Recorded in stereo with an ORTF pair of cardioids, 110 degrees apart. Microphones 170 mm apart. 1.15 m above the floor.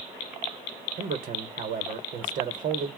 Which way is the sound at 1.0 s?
50° right.